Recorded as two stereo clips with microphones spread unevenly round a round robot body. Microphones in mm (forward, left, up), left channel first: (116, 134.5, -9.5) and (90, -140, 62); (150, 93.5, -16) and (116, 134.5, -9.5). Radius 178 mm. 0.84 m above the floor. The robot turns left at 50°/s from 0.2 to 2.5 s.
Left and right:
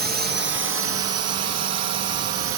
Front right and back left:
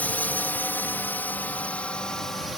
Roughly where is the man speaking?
I don't hear a man speaking.